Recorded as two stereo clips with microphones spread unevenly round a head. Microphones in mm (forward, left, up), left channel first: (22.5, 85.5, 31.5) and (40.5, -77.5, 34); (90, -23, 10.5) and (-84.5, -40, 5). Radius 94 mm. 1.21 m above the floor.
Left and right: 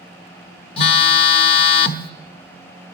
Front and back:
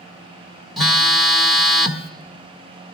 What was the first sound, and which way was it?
A phone buzzing, 90° left.